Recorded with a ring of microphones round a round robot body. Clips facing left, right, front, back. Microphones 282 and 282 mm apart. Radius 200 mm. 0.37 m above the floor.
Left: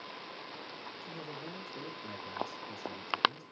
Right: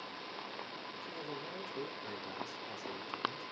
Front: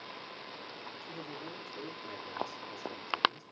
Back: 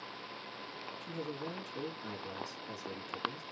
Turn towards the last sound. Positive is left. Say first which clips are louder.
# even, back 5 dB
turn(degrees=155)